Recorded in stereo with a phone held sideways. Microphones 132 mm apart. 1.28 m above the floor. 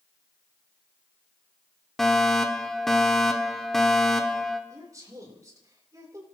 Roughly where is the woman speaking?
Right.